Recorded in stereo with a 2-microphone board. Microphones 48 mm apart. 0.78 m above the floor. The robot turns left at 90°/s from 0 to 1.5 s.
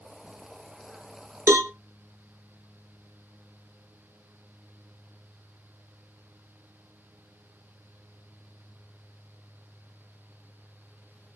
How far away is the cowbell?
About 0.5 m.